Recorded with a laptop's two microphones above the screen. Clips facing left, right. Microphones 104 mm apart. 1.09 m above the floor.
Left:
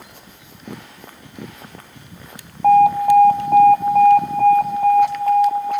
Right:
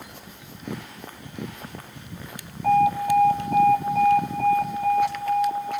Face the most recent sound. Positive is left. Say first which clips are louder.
# left 7 dB
turn(degrees=45)  # may be behind; listen again after turning